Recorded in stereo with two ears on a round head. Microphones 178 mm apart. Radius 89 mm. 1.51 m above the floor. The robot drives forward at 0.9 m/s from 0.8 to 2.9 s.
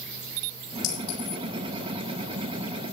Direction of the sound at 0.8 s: 70° left (ahead or behind).